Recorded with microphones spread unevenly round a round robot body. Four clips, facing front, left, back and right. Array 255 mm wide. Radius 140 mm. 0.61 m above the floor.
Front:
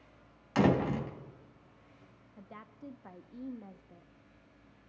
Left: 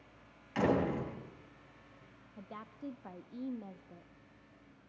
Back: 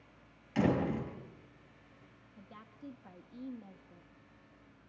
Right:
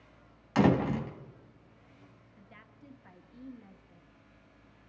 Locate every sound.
0.6 s a door slam: 120° right, 3 m
2.4 s a woman speaking: 125° left, 0.9 m